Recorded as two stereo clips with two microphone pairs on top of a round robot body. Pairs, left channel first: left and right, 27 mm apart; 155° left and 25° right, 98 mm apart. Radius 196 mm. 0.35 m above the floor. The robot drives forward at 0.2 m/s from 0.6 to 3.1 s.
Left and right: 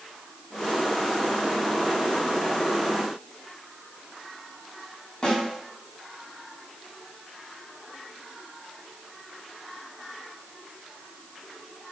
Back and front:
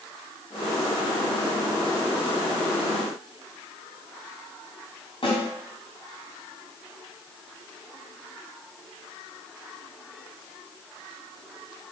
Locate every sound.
5.2 s a snare drum: 145° left, 1.7 m